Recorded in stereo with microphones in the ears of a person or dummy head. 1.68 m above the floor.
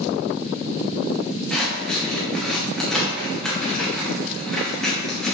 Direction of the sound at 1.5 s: 5° left (ahead or behind).